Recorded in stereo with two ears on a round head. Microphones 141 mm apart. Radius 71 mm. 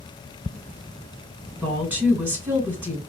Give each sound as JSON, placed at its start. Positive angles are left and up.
{"t": 1.6, "sound": "a woman speaking", "side_deg": -15, "distance_m": 1.7}